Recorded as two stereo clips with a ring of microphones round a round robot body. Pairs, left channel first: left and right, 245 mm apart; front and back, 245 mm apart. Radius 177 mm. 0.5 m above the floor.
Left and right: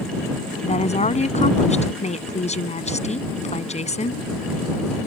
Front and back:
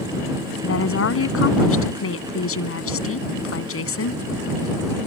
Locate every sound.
0.6 s a woman speaking: 25° left